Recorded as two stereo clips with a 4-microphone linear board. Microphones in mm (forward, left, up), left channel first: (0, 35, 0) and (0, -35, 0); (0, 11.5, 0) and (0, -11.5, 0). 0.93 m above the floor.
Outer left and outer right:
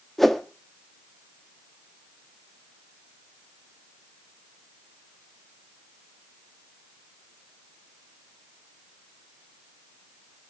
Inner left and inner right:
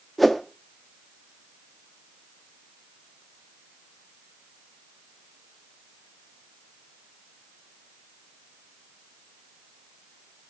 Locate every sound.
0.2 s a whoosh: centre (ahead or behind), 1.3 m